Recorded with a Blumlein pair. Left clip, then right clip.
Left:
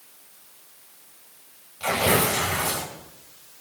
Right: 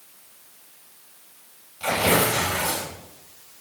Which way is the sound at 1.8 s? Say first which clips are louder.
Right 1 dB; 10° left.